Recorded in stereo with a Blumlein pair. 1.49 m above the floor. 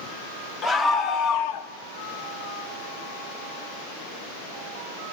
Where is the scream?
15° left, 1.4 m; by 1.7 s 55° left, 1.0 m.